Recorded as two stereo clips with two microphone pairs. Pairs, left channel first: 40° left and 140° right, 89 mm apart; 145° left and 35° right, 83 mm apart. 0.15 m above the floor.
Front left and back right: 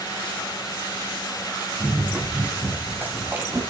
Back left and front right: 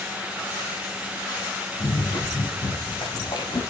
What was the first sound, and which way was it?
Running footsteps, 145° left.